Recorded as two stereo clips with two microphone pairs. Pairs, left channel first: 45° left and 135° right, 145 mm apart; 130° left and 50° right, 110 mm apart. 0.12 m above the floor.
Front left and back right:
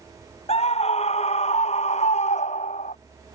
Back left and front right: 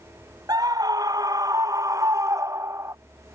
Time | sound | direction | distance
0.5 | a scream | 5° left | ?